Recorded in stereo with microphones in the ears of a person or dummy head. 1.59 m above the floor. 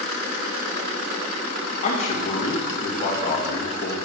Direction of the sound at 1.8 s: 40° left (ahead or behind).